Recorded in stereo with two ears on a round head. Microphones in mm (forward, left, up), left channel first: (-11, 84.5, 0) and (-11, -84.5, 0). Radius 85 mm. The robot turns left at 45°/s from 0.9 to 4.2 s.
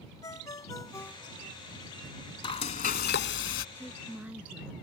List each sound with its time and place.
0.2 s a ringtone: 15° left (ahead or behind); by 1.6 s 15° right (ahead or behind)
2.4 s frying: 150° left; by 3.6 s 95° left
3.8 s a woman speaking: 10° left (ahead or behind); by 4.7 s 10° right (ahead or behind)